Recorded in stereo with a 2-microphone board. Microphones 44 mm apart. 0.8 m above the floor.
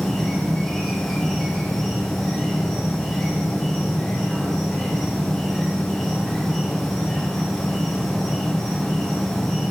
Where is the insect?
5° left (ahead or behind), 2.5 m.